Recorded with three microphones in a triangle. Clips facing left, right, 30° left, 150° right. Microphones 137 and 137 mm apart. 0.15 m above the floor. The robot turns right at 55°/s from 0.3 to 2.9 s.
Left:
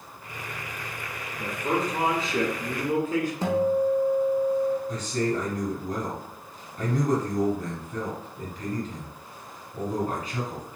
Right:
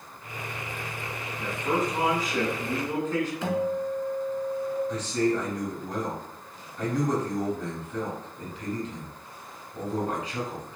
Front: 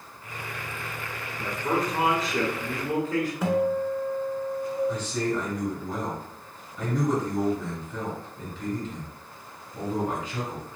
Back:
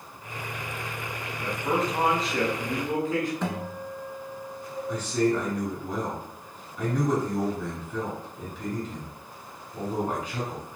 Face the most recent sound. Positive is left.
turn(degrees=120)